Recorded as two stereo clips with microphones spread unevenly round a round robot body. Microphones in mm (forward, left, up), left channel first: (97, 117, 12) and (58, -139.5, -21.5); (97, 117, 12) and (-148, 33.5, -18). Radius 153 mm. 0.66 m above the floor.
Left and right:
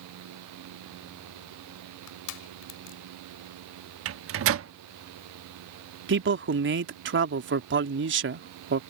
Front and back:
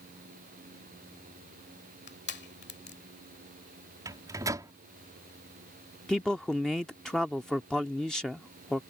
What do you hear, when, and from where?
2.1 s crushing: 70° left
4.0 s a microwave: 90° right
6.1 s a man speaking: 75° right